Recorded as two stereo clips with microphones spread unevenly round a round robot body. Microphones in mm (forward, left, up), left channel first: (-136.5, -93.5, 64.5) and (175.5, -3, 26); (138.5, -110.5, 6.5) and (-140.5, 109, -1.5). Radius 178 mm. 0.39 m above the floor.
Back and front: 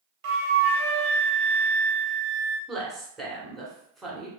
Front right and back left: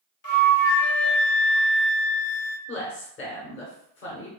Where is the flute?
25° left, 0.7 m.